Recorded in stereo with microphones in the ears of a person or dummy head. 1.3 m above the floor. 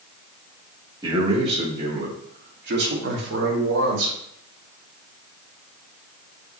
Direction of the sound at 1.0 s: 20° right (ahead or behind).